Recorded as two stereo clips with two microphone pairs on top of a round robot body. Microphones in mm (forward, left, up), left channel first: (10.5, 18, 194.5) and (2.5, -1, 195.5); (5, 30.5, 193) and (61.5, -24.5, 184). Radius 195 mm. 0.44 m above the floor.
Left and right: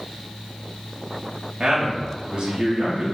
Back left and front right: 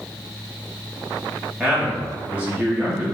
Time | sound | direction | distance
1.6 | a man speaking | 100° right | 1.2 m